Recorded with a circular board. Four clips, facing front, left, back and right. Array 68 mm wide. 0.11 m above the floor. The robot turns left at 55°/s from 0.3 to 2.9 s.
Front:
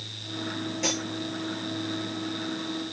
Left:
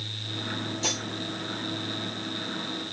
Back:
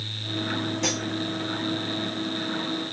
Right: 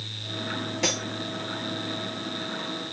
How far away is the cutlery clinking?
About 7 m.